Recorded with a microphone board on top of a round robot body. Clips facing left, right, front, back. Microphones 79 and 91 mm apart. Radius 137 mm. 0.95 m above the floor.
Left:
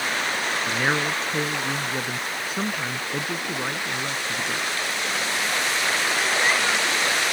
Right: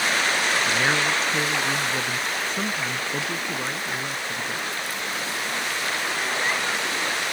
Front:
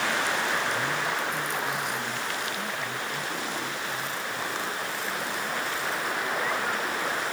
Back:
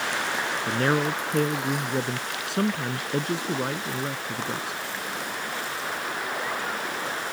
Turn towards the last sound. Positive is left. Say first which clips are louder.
# right 1 dB, back 4 dB
turn(degrees=175)